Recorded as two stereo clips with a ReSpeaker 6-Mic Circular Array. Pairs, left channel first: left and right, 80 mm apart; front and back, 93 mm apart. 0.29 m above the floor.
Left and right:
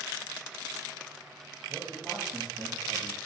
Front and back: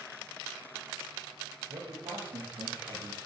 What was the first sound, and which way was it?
A man speaking, 175° right.